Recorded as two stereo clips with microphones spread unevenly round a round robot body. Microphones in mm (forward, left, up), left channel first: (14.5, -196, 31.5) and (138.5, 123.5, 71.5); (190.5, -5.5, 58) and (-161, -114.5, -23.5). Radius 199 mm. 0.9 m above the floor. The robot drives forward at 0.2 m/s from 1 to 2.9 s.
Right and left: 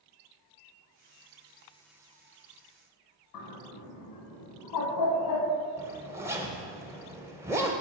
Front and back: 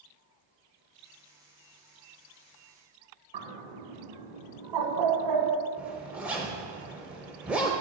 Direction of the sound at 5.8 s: 155° left.